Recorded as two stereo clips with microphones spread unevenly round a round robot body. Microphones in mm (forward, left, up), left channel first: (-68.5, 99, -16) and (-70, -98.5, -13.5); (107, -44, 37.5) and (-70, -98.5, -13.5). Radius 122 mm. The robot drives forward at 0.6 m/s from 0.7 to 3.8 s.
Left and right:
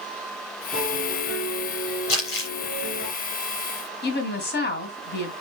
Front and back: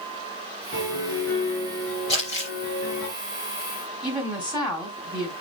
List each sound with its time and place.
0.7 s a piano: 35° left, 5 m; by 3.1 s 45° left, 3.5 m
2.1 s crumpling: 90° left, 4.5 m; by 2.5 s 95° left, 4.5 m
4.0 s a woman speaking: 120° left, 3 m